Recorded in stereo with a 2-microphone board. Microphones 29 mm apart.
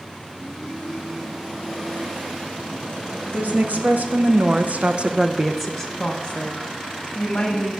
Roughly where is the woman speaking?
Right.